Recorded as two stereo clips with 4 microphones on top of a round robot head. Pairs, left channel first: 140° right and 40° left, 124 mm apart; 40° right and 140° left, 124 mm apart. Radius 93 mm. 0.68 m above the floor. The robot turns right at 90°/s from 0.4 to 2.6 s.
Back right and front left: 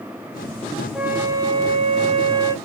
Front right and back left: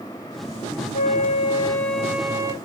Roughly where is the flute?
Ahead right.